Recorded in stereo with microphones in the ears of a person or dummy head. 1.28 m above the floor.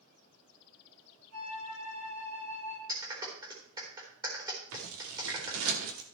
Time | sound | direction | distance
1.3 | a flute | 85° right | 6 m
2.9 | a clap | 20° right (ahead or behind) | 3.5 m
4.7 | scissors | 80° right | 2.5 m